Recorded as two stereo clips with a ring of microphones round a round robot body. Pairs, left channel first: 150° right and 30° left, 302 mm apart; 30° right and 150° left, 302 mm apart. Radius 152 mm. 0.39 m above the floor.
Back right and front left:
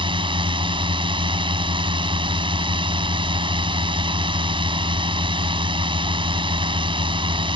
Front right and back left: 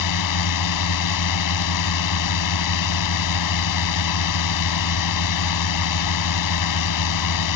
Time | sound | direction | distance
0.0 | a drone | 45° right | ?